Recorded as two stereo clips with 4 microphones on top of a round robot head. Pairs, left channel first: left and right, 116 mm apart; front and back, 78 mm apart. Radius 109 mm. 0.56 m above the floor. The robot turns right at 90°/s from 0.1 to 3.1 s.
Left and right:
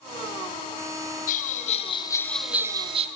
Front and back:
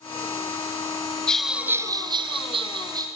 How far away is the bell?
About 1.0 m.